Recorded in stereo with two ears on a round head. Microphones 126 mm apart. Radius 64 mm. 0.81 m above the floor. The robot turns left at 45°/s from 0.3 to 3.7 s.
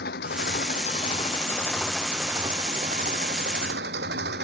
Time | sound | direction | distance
0.0 | an engine running | 75° left | ?